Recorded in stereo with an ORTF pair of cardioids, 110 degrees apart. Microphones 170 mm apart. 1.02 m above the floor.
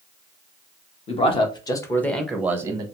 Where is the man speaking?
40° left, 1.0 m; by 2.9 s 25° right, 0.7 m.